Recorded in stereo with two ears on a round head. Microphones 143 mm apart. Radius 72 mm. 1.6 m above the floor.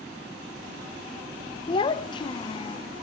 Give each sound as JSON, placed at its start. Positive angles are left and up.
{"t": 1.7, "sound": "a child speaking", "side_deg": 30, "distance_m": 0.5}